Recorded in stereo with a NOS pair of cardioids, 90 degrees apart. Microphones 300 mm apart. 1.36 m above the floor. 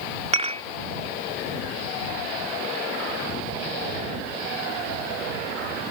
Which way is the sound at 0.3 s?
20° right.